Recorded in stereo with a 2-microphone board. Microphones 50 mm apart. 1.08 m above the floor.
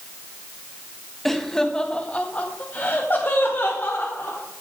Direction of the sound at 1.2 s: 5° left (ahead or behind).